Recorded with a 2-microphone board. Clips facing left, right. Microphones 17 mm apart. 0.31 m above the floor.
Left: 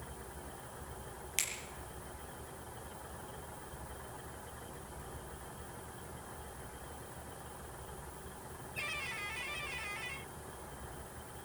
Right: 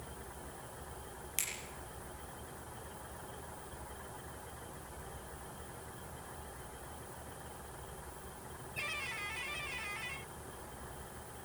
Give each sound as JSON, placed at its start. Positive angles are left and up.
{"t": 1.4, "sound": "a finger snap", "side_deg": 20, "distance_m": 5.0}